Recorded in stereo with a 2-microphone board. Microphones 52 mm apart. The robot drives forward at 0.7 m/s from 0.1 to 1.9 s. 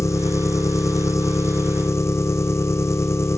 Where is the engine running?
70° left (ahead or behind), 1.6 m; by 3.4 s 65° left (ahead or behind), 1.7 m.